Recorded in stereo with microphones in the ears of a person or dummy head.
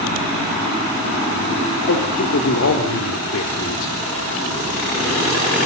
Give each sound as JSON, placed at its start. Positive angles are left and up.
{"t": 1.9, "sound": "a man speaking", "side_deg": 75, "distance_m": 3.5}